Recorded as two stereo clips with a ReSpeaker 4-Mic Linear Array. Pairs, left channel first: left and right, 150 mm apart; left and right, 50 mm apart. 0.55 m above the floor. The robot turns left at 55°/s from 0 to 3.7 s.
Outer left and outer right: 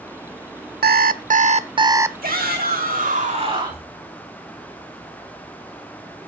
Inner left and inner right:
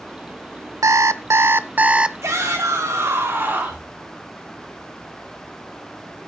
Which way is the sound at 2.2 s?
60° right.